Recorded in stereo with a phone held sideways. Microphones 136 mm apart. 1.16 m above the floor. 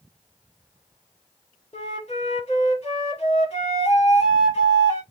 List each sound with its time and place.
1.7 s a flute: 55° left (ahead or behind), 1.7 m